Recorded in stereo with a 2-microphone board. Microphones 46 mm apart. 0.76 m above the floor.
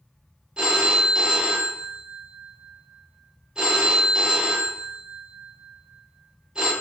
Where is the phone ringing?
20° right (ahead or behind), 0.6 m.